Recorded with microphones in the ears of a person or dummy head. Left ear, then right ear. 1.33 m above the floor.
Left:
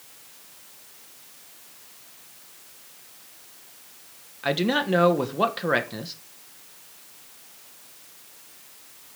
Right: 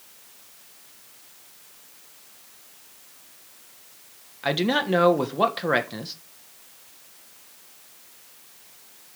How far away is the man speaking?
About 1.3 m.